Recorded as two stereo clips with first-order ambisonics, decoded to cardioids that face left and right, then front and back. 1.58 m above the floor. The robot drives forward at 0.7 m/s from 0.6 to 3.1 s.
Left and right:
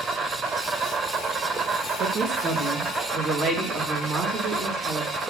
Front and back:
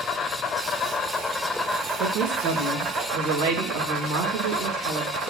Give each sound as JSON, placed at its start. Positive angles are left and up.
{"t": 0.0, "sound": "an insect", "azimuth_deg": -40, "distance_m": 1.6}
{"t": 2.0, "sound": "a woman speaking", "azimuth_deg": -150, "distance_m": 2.5}